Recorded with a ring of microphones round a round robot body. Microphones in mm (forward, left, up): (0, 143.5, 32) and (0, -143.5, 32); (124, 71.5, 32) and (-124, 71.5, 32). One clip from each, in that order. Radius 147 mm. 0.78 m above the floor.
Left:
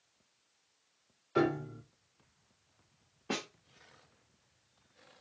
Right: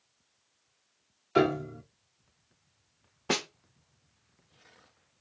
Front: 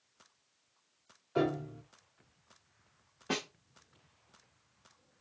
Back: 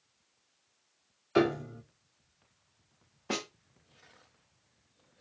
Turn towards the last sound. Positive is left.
turn(degrees=-85)